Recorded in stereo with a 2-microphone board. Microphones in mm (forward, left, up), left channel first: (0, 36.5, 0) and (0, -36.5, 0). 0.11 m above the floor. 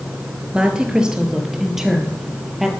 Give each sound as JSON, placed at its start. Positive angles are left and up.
{"t": 0.5, "sound": "a woman speaking", "side_deg": -15, "distance_m": 2.0}